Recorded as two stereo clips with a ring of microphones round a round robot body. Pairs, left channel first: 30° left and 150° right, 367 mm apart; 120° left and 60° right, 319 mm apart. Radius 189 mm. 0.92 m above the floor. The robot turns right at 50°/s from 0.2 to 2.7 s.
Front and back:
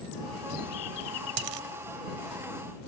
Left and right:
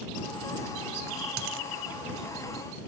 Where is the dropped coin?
115° right; by 1.7 s 100° right.